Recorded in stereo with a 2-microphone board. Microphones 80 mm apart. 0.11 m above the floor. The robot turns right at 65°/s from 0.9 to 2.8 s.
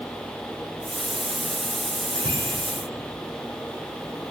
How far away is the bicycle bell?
About 3.5 m.